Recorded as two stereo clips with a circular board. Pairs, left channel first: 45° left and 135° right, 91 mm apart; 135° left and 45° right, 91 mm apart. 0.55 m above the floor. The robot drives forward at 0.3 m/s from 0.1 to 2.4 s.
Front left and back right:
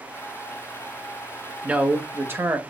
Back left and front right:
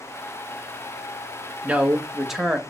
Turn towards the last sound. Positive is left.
turn(degrees=-130)